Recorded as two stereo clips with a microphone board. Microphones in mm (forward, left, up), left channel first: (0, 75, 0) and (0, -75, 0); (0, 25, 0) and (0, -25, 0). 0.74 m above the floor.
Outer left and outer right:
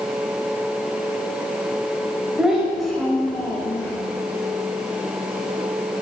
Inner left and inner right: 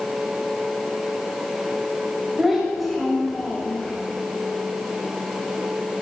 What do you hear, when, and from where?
2.4 s a child speaking: 5° right (ahead or behind), 1.8 m; by 3.9 s 15° left (ahead or behind), 1.3 m